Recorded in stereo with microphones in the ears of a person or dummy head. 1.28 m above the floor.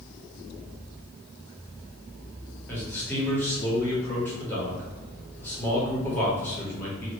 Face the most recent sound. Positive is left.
turn(degrees=15)  # may be behind; listen again after turning